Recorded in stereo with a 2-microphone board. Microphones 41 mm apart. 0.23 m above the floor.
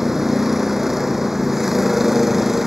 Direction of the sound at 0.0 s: 5° right (ahead or behind).